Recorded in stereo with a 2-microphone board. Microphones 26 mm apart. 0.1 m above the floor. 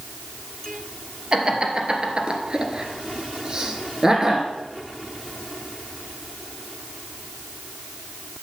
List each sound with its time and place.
1.3 s laughter: 35° right (ahead or behind), 1.9 m; by 4.5 s 15° right (ahead or behind), 1.6 m